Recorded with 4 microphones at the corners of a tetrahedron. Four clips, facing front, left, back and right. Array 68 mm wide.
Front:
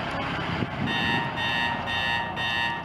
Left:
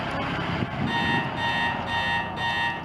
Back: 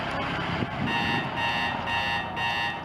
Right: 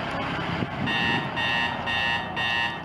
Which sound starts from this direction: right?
An alarm clock, at 0.9 s.